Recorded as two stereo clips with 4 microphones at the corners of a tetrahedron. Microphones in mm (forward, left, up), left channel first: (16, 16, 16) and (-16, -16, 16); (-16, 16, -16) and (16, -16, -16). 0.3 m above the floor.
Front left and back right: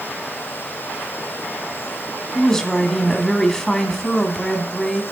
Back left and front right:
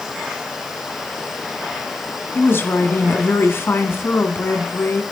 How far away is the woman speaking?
About 2 m.